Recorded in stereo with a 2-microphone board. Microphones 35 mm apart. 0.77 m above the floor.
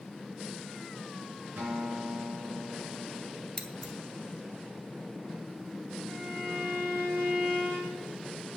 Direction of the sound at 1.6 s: 70° right (ahead or behind).